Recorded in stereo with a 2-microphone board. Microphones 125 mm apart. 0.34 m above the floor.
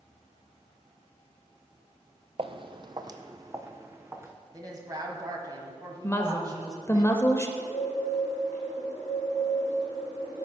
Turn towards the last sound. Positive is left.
turn(degrees=80)